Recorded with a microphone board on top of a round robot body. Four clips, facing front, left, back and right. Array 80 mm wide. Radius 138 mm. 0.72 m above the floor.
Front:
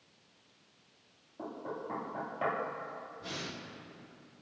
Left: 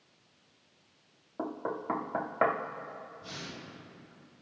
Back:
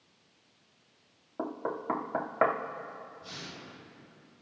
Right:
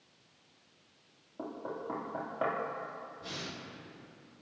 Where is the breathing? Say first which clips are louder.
Right 1 dB, front 3 dB; 35° right, 5.5 m.